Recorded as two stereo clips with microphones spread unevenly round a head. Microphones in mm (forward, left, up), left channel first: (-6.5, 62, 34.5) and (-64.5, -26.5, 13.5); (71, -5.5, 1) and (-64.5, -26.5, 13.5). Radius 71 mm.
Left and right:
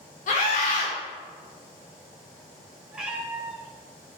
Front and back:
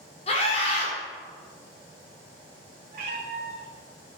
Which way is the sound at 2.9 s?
155° left.